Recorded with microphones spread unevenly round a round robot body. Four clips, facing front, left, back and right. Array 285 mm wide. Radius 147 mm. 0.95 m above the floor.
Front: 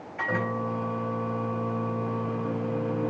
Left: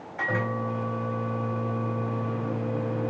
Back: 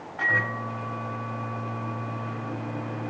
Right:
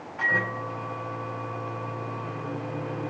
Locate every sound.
0.2 s a microwave: 30° left, 4 m